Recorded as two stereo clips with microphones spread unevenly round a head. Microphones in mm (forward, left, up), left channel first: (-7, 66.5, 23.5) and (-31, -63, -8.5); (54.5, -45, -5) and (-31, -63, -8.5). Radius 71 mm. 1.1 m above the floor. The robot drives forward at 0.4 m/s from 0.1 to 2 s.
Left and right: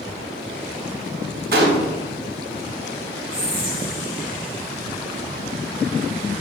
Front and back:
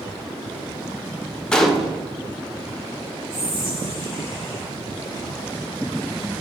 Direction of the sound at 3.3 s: 140° right.